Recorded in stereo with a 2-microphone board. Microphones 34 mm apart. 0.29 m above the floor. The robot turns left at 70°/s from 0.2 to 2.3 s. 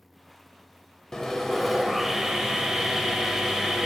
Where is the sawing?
15° left (ahead or behind), 0.6 m; by 3.9 s 10° right (ahead or behind), 0.6 m.